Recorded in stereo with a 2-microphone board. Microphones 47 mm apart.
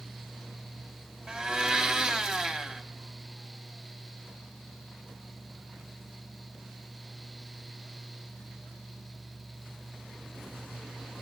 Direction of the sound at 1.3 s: 20° right (ahead or behind).